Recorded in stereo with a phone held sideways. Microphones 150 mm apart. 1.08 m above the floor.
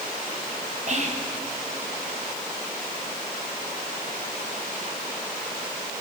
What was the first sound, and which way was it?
Whispering, 50° right (ahead or behind).